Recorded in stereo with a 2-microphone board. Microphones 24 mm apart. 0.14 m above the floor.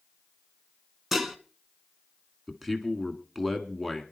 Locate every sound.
1.1 s dishes clattering: 5° right (ahead or behind), 0.8 m
2.5 s a man speaking: 5° right (ahead or behind), 1.3 m